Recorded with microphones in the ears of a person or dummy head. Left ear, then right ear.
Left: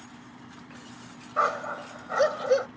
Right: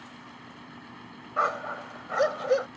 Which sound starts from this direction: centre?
A dog barking, at 1.4 s.